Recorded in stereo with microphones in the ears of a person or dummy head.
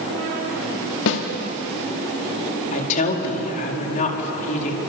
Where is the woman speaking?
40° left (ahead or behind), 4.5 m.